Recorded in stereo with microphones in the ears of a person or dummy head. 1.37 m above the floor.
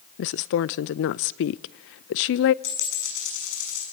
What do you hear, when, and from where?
0.2 s a woman speaking: 60° left (ahead or behind), 0.5 m
2.6 s a dropped coin: 75° left (ahead or behind), 6.5 m